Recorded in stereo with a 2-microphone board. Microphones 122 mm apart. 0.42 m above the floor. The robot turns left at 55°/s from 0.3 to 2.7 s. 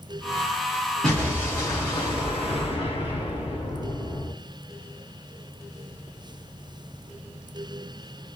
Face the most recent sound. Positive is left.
turn(degrees=85)